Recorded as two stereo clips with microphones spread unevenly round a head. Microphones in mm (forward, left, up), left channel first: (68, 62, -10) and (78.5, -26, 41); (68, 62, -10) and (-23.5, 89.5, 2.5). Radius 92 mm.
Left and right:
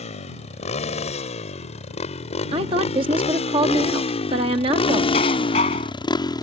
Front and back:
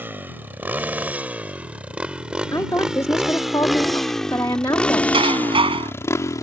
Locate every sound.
0.0 s a motorcycle: 95° left; by 6.4 s 35° left
2.5 s a woman speaking: 90° right
5.1 s dishes clattering: 140° left